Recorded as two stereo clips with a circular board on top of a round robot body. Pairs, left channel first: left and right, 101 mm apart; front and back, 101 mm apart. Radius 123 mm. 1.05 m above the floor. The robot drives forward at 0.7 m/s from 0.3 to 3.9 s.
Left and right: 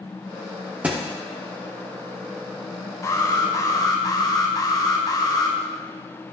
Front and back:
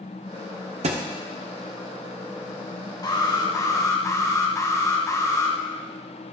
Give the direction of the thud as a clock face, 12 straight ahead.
6 o'clock.